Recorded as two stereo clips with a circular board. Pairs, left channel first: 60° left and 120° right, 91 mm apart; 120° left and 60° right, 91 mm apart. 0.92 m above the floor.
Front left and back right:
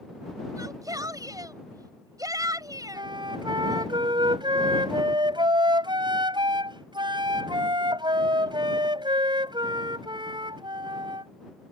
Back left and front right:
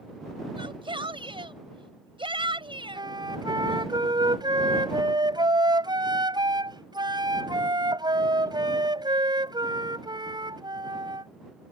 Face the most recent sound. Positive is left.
turn(degrees=-95)